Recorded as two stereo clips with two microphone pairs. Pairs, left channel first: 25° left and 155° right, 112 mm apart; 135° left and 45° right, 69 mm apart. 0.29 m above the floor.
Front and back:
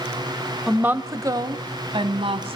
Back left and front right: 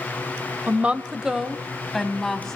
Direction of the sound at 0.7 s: 80° right.